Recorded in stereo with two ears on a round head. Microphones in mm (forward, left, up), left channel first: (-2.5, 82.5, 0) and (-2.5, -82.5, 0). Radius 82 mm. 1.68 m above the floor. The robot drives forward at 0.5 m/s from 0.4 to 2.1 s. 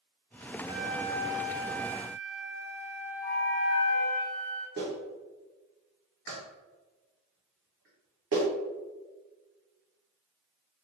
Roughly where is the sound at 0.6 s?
Right.